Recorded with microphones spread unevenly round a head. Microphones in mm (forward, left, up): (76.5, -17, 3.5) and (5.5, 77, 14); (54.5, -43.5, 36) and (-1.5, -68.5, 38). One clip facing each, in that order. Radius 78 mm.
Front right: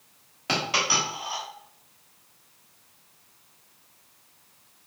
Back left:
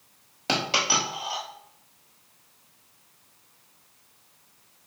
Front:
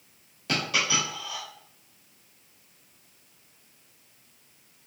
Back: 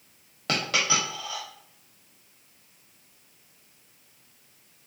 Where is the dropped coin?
175° left, 1.1 m.